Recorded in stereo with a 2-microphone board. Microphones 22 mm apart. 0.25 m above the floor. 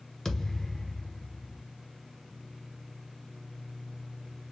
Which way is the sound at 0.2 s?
10° left (ahead or behind).